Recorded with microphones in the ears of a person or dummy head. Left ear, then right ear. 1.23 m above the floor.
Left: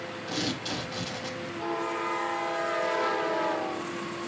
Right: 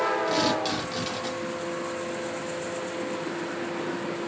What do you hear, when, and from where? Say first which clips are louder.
0.3 s tearing paper: right 7 dB; 30° right (ahead or behind), 3.5 m